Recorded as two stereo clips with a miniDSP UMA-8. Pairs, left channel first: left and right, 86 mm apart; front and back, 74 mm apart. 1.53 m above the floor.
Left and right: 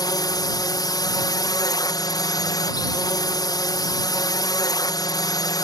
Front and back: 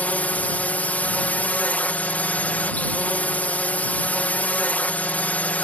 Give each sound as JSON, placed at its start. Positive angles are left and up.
{"t": 0.0, "sound": "a drone", "azimuth_deg": 65}